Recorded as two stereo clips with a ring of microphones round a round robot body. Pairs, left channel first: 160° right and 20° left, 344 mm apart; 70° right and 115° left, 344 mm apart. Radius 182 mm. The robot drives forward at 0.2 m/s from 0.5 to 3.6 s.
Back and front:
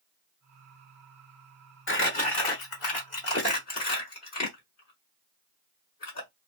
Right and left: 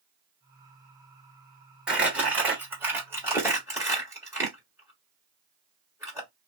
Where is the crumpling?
160° right, 1.3 m; by 6.3 s 170° right, 1.5 m.